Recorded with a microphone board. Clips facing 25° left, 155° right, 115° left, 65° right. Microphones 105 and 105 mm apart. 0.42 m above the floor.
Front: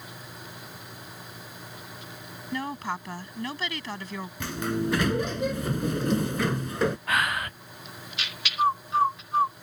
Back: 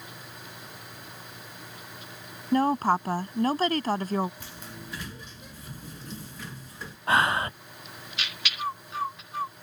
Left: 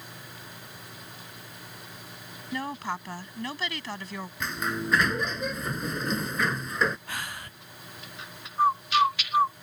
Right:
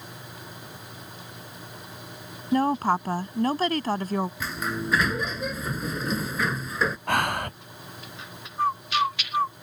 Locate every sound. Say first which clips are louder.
2.5 s a woman speaking: back 9 dB, right 11 dB; 110° right
4.4 s a sliding door: front 15 dB, right 1 dB; 20° left
7.1 s breathing: back 3 dB, right 13 dB; 95° right
8.6 s a bird: front 9 dB, left 2 dB; 40° left